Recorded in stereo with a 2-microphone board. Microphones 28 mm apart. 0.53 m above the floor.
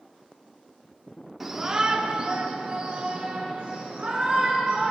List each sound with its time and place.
1.4 s a shout: 10° right (ahead or behind), 1.0 m; by 4.9 s 30° right (ahead or behind), 2.5 m